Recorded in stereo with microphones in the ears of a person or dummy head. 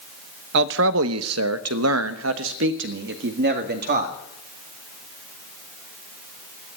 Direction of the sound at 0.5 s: 60° right (ahead or behind).